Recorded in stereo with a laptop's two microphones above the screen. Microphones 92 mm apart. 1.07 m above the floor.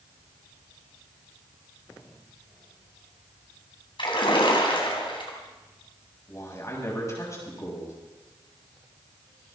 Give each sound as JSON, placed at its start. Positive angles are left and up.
{"t": 4.0, "sound": "a splash", "side_deg": 65, "distance_m": 3.5}
{"t": 6.3, "sound": "a man speaking", "side_deg": 35, "distance_m": 7.0}